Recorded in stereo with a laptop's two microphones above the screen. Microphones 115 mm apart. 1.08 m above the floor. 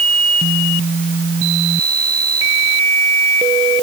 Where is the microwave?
I don't hear a microwave.